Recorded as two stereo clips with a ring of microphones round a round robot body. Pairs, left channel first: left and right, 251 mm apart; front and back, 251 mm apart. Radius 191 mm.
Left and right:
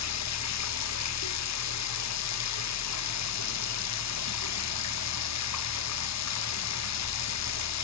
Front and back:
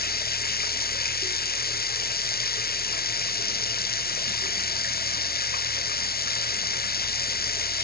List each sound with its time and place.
0.0 s running water: 55° left